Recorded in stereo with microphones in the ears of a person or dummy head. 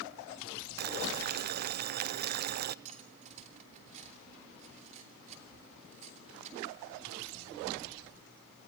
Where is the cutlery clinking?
35° right (ahead or behind), 3 m.